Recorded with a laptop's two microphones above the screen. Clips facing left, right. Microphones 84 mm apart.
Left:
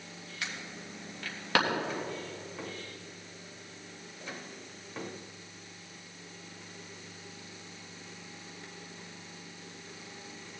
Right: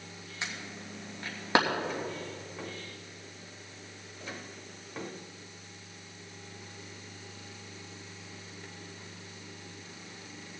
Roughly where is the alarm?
Right.